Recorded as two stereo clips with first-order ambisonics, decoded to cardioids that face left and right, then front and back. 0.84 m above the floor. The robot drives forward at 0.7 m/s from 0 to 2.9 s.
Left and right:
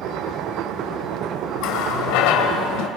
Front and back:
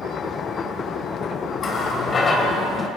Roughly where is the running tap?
Ahead left.